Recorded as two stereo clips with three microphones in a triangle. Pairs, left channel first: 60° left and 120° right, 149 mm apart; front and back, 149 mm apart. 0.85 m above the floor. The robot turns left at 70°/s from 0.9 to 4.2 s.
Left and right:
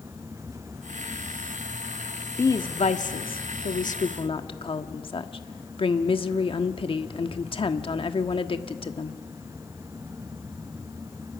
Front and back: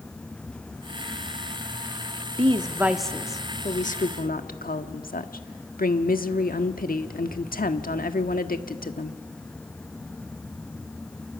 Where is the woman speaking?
135° left, 1.4 m; by 9.2 s 5° left, 1.4 m.